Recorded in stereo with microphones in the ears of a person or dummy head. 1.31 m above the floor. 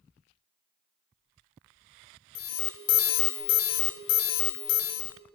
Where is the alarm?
70° left (ahead or behind), 0.8 m.